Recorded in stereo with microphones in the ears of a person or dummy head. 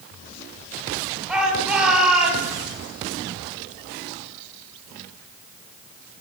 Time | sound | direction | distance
1.3 | a shout | 5° right (ahead or behind) | 9.5 m